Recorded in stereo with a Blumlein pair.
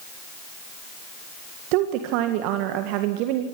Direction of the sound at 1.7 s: 45° right.